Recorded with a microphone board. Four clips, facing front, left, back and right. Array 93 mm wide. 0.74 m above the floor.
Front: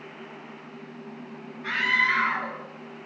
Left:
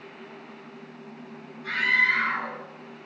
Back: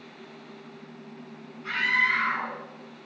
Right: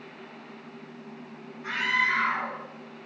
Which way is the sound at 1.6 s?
20° right.